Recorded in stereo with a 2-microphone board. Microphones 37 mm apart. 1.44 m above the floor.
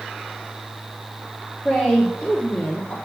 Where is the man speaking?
40° left (ahead or behind), 1.3 m.